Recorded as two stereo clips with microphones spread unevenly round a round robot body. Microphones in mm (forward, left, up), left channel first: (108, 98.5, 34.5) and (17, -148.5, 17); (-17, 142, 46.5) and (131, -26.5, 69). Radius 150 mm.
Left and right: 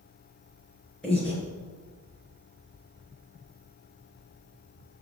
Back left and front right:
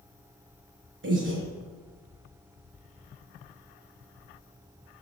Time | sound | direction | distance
1.0 | breathing | 15° right | 6.5 m